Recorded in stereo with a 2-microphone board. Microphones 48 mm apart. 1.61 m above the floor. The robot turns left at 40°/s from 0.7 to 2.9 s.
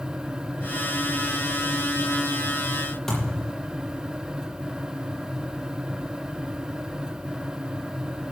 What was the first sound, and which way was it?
A thud, 5° left (ahead or behind).